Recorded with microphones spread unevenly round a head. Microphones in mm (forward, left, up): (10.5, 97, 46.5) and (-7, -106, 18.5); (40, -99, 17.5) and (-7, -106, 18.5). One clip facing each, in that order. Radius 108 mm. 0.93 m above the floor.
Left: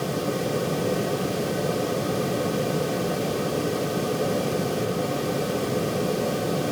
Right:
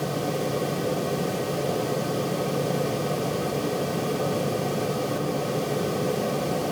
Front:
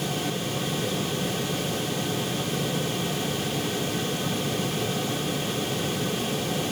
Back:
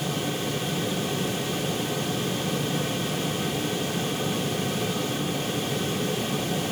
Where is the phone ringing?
I don't hear a phone ringing.